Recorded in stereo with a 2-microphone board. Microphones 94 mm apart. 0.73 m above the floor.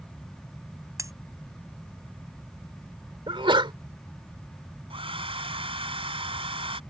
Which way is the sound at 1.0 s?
35° right (ahead or behind).